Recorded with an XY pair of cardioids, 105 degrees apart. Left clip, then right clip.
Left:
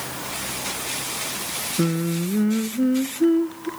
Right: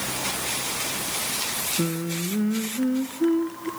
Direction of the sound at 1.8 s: 30° left.